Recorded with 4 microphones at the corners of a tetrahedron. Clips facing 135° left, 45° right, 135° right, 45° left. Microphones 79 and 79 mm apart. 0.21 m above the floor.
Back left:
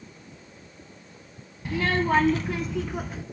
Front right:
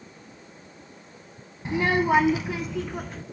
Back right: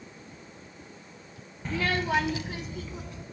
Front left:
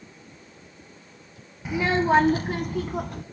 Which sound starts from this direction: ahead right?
A child speaking, at 1.6 s.